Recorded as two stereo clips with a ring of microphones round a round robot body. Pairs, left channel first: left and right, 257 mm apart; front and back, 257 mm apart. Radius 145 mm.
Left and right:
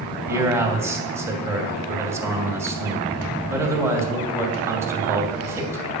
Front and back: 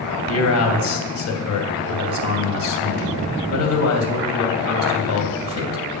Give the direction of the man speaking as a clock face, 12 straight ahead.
12 o'clock.